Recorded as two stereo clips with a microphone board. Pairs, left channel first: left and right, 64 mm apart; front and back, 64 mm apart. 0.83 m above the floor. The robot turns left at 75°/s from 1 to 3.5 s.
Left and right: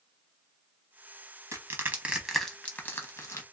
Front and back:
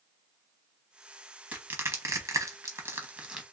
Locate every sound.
1.5 s crushing: 115° right, 0.8 m; by 3.4 s 100° left, 0.8 m